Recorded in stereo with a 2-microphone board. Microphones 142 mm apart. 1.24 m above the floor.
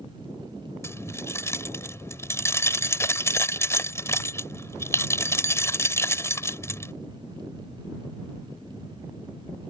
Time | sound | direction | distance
0.8 | keys jangling | 20° left (ahead or behind) | ?